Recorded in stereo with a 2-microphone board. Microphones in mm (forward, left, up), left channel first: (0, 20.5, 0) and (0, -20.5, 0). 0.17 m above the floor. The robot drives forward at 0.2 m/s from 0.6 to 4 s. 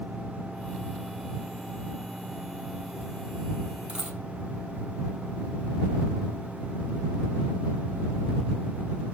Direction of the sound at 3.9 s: 25° right (ahead or behind).